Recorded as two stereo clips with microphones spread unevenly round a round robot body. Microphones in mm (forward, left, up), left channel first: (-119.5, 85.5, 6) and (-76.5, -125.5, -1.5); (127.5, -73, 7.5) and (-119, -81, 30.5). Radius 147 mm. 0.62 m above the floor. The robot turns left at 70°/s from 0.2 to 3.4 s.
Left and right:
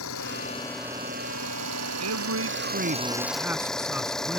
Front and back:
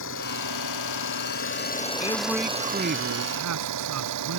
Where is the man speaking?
60° right; by 4.4 s 160° right.